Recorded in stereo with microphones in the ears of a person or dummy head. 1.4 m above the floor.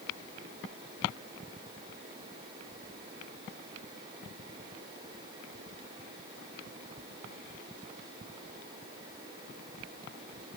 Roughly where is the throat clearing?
No throat clearing in this recording.